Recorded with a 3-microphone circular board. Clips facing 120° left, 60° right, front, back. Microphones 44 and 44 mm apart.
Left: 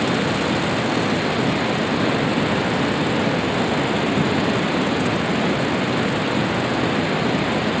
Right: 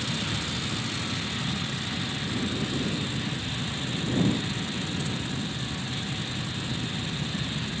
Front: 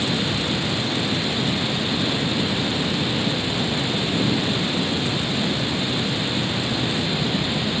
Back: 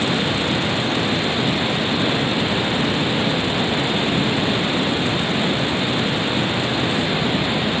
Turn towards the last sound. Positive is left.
turn(degrees=115)